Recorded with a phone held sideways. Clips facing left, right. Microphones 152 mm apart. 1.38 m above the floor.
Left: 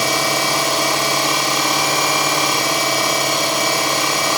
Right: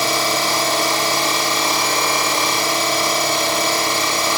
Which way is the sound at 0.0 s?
10° left (ahead or behind).